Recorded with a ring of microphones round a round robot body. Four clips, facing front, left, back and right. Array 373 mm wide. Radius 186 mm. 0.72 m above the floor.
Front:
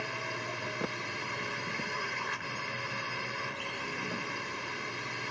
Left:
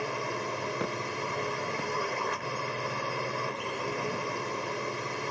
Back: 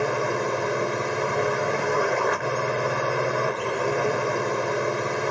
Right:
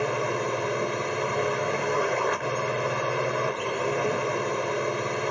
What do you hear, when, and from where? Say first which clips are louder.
0.0 s a drone: right 7 dB, back 14 dB; 155° right